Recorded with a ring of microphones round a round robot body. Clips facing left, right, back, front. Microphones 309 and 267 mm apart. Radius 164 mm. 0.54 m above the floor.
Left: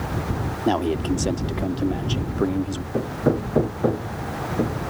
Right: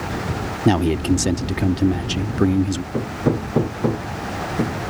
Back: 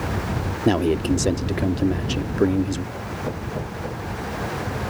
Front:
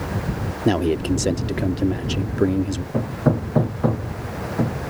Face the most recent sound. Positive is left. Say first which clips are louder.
# left 1 dB, front 9 dB
turn(degrees=-10)